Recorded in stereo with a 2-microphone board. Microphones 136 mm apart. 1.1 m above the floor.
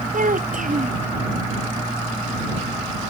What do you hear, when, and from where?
0.1 s a child speaking: 80° right